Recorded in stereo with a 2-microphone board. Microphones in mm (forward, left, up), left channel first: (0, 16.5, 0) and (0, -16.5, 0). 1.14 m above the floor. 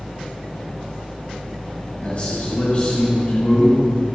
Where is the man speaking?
50° left (ahead or behind), 3.5 m.